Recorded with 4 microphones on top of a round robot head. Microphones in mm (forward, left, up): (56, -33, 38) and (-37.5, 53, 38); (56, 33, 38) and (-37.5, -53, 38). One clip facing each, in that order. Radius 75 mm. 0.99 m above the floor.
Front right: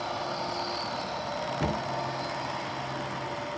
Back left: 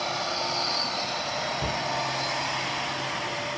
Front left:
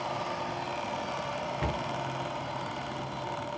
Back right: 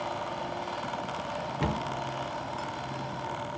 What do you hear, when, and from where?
1.6 s a cupboard door: 85° right, 0.6 m